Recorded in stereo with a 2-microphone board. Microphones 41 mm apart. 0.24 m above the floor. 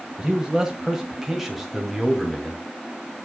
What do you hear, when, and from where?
0.2 s a man speaking: 15° right (ahead or behind), 1.5 m; by 2.6 s centre (ahead or behind), 2 m